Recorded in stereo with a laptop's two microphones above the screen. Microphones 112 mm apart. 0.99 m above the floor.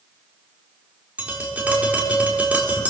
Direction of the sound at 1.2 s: 15° right (ahead or behind).